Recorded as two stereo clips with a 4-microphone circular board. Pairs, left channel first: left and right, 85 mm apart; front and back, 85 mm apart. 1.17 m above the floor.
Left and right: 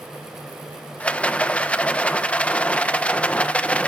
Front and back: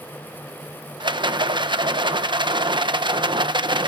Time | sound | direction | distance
1.0 | a rattle | 165° left | 0.9 m